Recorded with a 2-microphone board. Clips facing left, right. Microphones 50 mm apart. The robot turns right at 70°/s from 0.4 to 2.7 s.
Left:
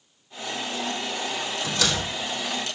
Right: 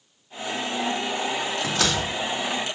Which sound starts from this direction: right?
A door slam, at 1.6 s.